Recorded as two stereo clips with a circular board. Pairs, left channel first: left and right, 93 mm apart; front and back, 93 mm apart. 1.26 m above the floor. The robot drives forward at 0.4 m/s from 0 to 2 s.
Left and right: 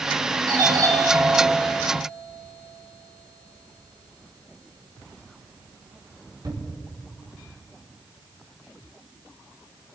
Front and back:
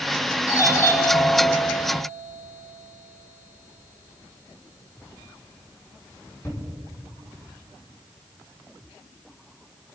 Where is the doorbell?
50° right, 5 m; by 6.6 s 60° right, 4.5 m.